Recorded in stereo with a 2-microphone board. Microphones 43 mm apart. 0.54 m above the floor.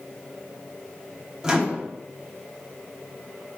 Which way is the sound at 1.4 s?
15° right (ahead or behind).